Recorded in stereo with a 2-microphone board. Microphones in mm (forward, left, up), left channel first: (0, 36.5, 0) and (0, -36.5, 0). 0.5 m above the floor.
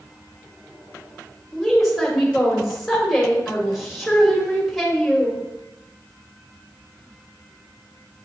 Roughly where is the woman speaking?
Centre.